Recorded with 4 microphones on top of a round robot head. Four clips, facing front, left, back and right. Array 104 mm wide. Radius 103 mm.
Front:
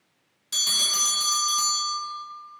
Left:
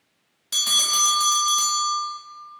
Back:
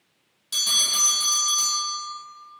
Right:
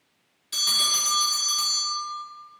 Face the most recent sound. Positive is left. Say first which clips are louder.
# left 4 dB, back 1 dB
turn(degrees=90)